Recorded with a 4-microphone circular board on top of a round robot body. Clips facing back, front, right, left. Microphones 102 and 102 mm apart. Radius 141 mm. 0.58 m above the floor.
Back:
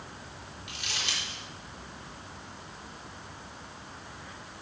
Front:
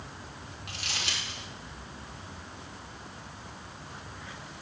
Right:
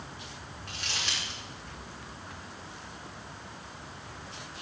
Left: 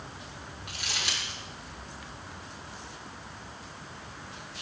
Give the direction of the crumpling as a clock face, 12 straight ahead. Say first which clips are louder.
Front 1 dB, left 1 dB; 12 o'clock.